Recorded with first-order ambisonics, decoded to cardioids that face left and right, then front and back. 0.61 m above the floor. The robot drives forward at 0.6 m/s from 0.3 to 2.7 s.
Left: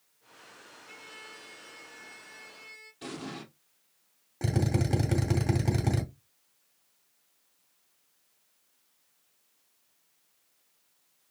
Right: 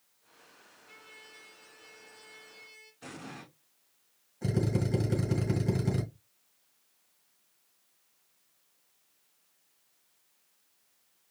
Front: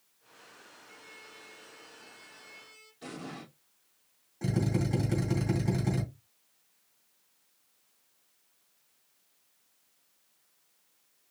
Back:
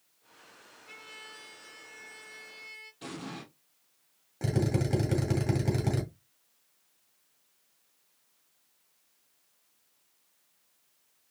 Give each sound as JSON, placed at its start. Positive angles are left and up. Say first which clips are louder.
{"t": 0.9, "sound": "a trumpet", "louder": "left 5 dB, back 6 dB", "azimuth_deg": 145, "distance_m": 1.0}
{"t": 3.0, "sound": "an explosion", "louder": "left 5 dB, even", "azimuth_deg": 125, "distance_m": 3.0}
{"t": 4.4, "sound": "a drill", "louder": "left 1 dB, back 2 dB", "azimuth_deg": 120, "distance_m": 2.0}